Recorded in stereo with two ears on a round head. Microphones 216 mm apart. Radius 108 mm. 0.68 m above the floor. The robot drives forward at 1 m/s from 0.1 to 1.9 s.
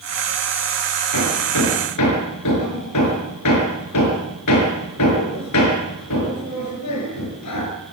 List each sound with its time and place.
1.1 s hammering: 90° left, 6 m; by 7.7 s 85° left, 6 m